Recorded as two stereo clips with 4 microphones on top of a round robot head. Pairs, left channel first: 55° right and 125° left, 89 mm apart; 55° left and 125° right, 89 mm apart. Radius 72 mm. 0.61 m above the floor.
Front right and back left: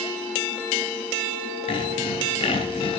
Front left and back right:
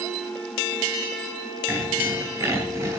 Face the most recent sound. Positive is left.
turn(degrees=-65)